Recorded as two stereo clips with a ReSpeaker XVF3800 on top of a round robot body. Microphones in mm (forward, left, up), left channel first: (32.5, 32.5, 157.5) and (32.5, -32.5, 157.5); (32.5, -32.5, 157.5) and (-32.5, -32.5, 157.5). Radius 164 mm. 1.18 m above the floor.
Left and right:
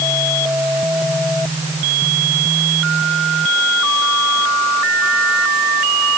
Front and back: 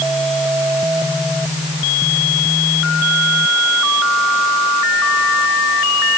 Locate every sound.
Only background noise.